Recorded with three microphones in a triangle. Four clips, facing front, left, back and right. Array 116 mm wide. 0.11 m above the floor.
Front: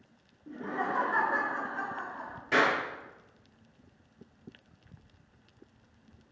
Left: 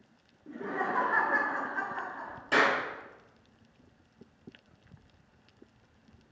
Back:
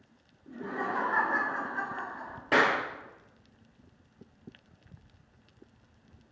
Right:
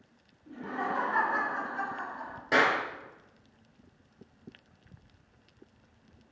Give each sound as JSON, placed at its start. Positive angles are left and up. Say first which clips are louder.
{"t": 0.5, "sound": "laughter", "louder": "left 1 dB, front 1 dB", "azimuth_deg": 70, "distance_m": 1.5}
{"t": 2.5, "sound": "a clap", "louder": "right 1 dB, back 1 dB", "azimuth_deg": -165, "distance_m": 1.4}